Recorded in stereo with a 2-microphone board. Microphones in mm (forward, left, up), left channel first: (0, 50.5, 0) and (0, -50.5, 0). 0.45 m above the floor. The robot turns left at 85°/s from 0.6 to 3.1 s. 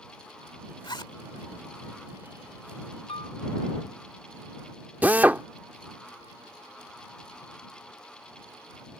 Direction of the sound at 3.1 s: 70° left (ahead or behind).